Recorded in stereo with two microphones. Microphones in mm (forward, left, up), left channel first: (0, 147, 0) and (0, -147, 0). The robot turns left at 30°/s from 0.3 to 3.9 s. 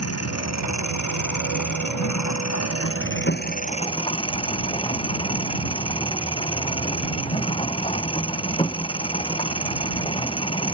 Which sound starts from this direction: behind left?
An engine running, at 0.0 s.